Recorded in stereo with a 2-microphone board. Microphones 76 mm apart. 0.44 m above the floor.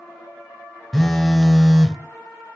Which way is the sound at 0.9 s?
5° left (ahead or behind).